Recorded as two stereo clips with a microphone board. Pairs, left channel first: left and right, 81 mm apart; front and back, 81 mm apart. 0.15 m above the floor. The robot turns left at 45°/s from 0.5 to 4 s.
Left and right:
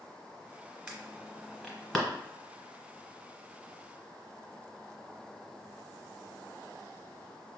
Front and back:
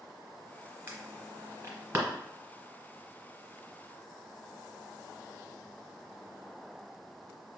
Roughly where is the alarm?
Behind right.